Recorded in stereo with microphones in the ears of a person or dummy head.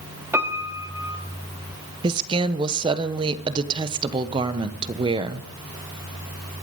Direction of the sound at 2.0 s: 25° right (ahead or behind).